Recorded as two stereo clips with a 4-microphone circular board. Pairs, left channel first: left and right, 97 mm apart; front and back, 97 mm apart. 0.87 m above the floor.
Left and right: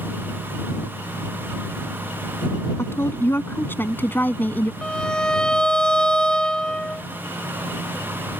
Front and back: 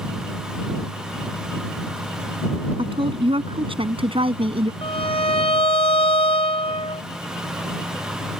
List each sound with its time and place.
2.8 s a woman speaking: 155° left; by 4.7 s 160° left
4.8 s a violin: 10° left